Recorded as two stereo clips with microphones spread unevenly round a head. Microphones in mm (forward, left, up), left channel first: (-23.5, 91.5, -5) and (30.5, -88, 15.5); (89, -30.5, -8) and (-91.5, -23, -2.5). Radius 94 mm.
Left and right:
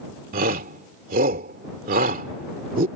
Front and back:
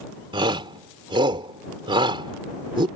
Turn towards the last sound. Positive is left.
turn(degrees=-120)